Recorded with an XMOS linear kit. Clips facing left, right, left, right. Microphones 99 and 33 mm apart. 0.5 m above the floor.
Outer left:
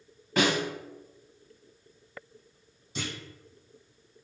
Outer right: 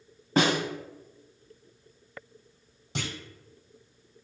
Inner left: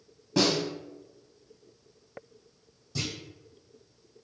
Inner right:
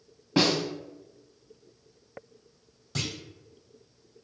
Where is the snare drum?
35° right (ahead or behind), 0.7 m.